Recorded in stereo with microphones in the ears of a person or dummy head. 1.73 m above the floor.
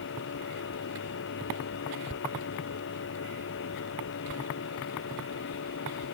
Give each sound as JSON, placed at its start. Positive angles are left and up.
{"t": 0.0, "sound": "a machine running", "side_deg": 60}